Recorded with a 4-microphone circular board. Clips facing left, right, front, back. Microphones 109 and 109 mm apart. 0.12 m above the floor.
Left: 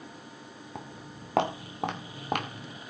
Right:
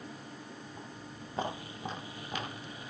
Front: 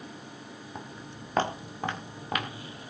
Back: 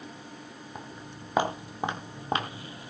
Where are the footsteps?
95° left, 3.5 m; by 2.8 s 125° left, 3 m.